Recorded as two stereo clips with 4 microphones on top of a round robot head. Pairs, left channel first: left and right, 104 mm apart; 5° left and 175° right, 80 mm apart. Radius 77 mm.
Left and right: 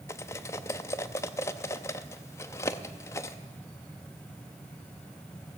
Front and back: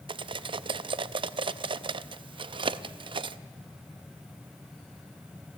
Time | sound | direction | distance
0.1 | cutlery clinking | 160° left | 0.6 m